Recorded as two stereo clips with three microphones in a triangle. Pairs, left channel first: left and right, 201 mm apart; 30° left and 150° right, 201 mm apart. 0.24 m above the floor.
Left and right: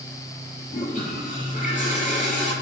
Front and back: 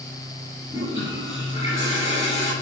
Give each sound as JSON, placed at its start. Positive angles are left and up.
{"t": 0.7, "sound": "a toilet flushing", "azimuth_deg": 140, "distance_m": 4.0}